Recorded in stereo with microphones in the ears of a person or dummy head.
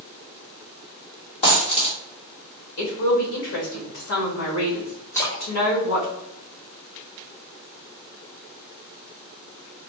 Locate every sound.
1.4 s a dropped coin: 30° left (ahead or behind), 1.4 m
2.8 s a woman speaking: 55° left (ahead or behind), 1.8 m
5.1 s a splash: 10° left (ahead or behind), 1.3 m